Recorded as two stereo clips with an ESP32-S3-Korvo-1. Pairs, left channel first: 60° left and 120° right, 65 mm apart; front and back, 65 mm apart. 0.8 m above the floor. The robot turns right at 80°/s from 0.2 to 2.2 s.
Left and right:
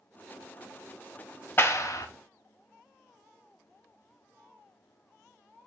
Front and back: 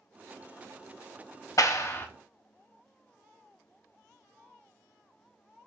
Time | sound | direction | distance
1.6 | a clap | 15° left | 0.5 m